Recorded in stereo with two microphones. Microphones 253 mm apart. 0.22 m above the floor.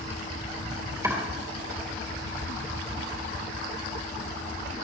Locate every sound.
1.0 s chopping: 15° right (ahead or behind), 3.5 m